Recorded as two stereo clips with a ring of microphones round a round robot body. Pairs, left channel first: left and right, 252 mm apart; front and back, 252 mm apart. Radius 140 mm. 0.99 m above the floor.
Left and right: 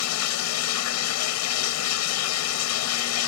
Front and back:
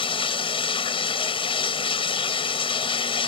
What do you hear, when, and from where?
0.0 s running water: 70° left